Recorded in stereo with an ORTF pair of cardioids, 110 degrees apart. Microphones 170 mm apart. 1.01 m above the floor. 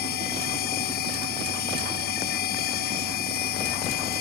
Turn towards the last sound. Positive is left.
turn(degrees=70)